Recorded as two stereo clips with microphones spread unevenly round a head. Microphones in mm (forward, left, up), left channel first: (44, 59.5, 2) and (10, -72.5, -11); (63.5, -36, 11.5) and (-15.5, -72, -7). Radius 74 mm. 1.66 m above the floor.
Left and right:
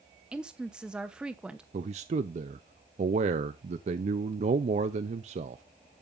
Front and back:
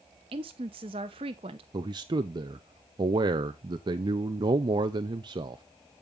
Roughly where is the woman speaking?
Behind.